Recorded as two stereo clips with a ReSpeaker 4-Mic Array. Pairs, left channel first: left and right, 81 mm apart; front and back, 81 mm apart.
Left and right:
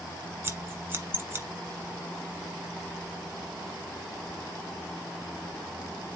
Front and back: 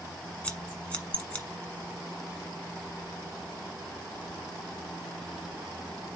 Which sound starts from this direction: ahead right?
Scissors, at 0.4 s.